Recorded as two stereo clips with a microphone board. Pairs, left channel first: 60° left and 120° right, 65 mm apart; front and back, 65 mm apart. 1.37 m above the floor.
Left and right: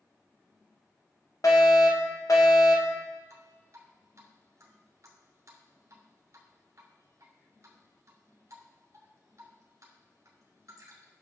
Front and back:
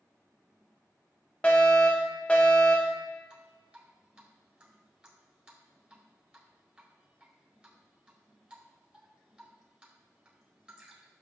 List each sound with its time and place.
1.4 s a fire alarm: 65° left, 1.7 m
3.3 s dripping: 110° right, 1.9 m